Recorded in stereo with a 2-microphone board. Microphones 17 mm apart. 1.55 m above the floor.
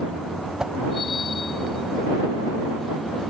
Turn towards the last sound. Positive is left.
turn(degrees=-45)  # may be behind; listen again after turning